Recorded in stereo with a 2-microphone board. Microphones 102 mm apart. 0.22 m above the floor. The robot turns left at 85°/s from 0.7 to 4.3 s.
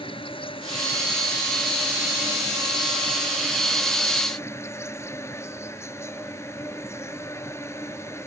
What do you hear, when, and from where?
0.0 s an insect: 95° left; by 8.3 s 150° left